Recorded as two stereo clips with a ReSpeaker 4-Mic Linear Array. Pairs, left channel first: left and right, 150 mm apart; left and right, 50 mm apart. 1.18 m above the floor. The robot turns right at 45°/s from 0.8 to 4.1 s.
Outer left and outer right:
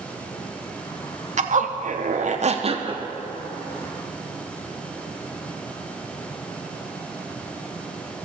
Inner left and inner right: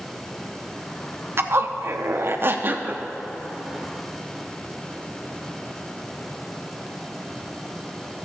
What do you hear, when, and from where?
1.4 s a zipper: 110° right, 0.6 m; by 3.0 s 35° right, 0.6 m